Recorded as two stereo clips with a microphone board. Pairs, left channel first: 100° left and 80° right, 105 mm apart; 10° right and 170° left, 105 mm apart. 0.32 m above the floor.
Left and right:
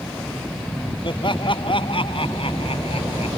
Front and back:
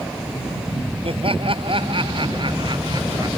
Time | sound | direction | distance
1.0 | laughter | 140° left | ?